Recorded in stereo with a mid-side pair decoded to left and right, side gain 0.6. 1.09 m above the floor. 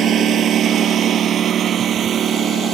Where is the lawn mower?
50° right; by 2.8 s 45° right.